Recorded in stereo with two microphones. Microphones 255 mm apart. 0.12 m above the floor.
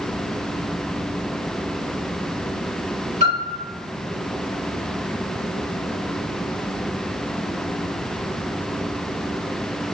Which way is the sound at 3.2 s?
45° right (ahead or behind).